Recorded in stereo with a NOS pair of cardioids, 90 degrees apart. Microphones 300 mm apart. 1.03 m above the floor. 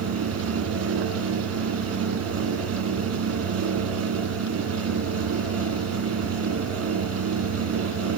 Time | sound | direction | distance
0.0 | a fan | 55° right | 3.5 m